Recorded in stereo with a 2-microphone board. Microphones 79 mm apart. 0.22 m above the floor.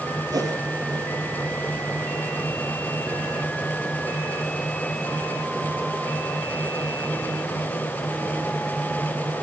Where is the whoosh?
55° right (ahead or behind), 5 m.